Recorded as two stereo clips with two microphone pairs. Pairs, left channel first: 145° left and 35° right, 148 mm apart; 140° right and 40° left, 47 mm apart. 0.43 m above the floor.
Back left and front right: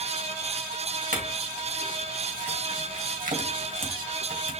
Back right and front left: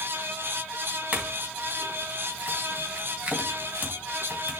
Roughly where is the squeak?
No squeak in this recording.